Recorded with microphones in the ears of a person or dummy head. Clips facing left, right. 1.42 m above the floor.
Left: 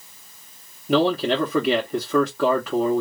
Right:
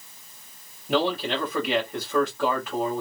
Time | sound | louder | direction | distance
0.9 | a man speaking | left 5 dB | 70° left (ahead or behind) | 0.8 m